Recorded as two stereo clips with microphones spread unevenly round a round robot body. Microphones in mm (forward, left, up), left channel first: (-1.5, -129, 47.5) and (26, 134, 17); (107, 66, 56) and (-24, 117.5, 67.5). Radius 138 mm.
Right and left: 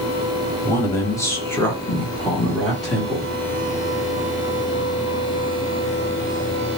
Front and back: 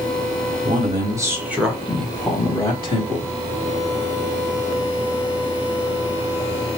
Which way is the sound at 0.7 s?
175° right.